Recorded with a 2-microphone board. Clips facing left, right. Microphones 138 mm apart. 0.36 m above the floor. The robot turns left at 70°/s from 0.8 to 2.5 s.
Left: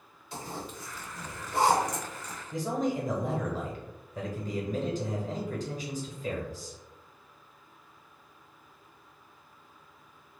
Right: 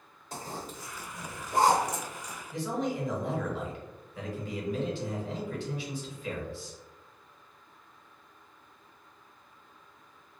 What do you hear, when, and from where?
0.3 s a zipper: 45° right (ahead or behind), 1.2 m; by 2.4 s 5° right (ahead or behind), 1.2 m
2.5 s a man speaking: 40° left (ahead or behind), 1.3 m